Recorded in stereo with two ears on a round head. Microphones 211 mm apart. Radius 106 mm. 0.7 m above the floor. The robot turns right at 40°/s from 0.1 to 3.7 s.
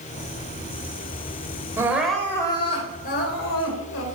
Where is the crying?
15° right, 3 m; by 4.0 s 65° left, 3 m.